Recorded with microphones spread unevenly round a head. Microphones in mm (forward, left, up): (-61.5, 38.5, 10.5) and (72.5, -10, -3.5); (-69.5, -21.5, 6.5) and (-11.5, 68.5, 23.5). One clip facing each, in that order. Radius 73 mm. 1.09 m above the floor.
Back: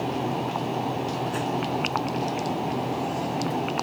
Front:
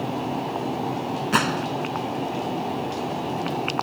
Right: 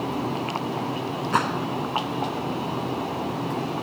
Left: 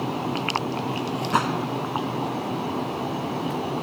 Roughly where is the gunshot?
Ahead right.